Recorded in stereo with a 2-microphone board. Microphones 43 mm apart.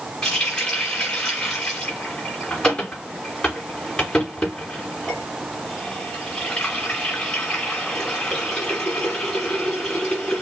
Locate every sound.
0.2 s a running tap: 20° left (ahead or behind), 3.5 m